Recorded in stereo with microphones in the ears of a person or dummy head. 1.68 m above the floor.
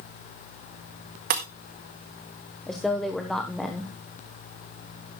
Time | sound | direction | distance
1.3 | breaking glass | 35° right (ahead or behind) | 1.1 m
2.7 | a woman speaking | centre (ahead or behind) | 1.1 m